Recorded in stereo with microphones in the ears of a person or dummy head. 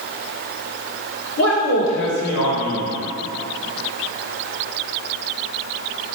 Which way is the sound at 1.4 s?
65° left (ahead or behind).